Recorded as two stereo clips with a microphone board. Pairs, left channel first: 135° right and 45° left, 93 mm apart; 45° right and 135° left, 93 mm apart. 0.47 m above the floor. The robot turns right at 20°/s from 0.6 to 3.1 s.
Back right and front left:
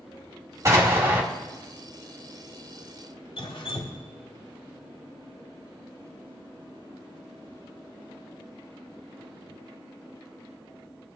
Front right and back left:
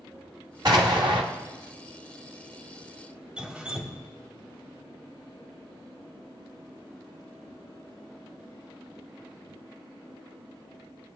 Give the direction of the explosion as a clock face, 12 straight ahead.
9 o'clock.